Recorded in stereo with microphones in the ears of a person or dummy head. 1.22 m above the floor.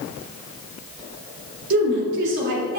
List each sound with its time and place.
1.7 s a woman speaking: 65° right (ahead or behind), 3 m